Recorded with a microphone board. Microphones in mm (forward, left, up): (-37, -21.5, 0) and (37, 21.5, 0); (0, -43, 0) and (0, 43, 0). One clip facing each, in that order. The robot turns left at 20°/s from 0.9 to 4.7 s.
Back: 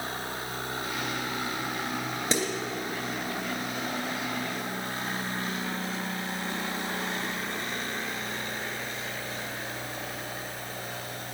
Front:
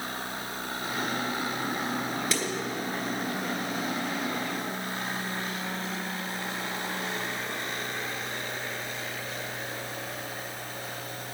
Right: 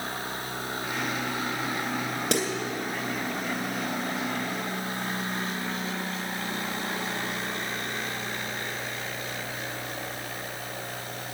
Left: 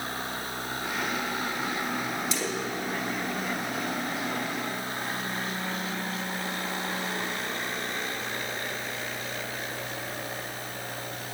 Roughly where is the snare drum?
Right.